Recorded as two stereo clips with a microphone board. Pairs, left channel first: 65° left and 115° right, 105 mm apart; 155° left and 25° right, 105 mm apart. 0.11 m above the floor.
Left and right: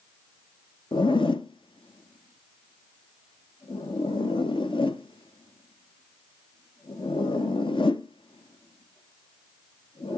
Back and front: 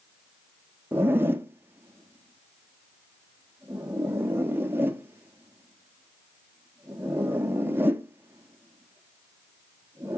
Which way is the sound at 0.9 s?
45° left.